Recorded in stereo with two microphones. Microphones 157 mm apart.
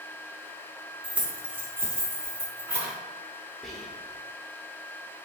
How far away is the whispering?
About 0.8 m.